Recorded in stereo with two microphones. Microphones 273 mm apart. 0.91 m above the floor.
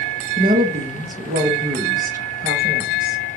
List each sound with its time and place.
0.4 s a woman speaking: 30° right (ahead or behind), 0.8 m